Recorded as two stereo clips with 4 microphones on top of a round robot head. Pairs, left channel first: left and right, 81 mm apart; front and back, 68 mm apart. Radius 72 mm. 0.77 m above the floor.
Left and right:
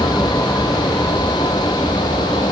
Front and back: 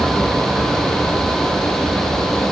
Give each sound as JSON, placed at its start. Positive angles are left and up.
{"t": 0.0, "sound": "an aircraft", "azimuth_deg": 130}